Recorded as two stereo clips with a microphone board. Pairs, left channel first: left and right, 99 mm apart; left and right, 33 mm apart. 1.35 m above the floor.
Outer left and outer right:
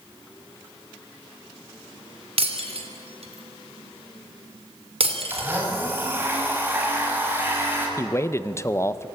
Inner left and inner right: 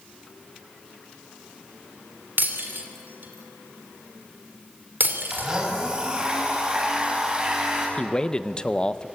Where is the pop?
I don't hear a pop.